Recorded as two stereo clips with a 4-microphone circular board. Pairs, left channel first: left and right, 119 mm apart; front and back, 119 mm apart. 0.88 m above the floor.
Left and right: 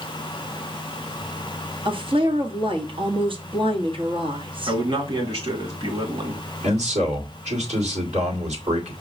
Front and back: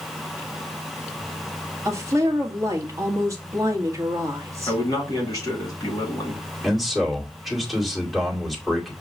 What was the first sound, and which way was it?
A woman speaking, 120° right.